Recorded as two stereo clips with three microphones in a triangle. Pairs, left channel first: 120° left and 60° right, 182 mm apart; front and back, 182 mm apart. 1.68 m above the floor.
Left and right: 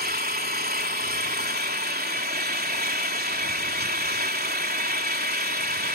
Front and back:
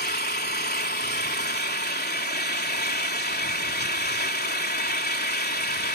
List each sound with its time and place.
0.0 s an engine running: 30° right